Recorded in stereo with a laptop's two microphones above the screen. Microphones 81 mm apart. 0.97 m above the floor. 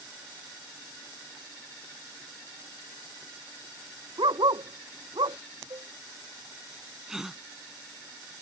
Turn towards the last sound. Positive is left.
turn(degrees=-5)  # may be behind; listen again after turning